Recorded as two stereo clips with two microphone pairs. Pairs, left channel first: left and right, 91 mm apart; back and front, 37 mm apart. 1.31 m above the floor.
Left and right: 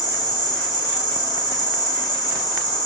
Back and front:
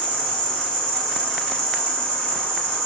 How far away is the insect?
About 1.6 m.